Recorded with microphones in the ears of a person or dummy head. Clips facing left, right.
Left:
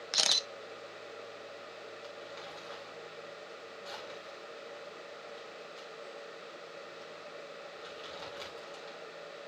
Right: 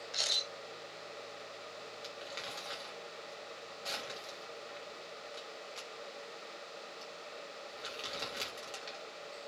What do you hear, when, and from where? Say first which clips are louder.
0.1 s a camera shutter: left 6 dB; 75° left (ahead or behind), 0.8 m
2.0 s crumpling: left 1 dB; 35° right (ahead or behind), 2.5 m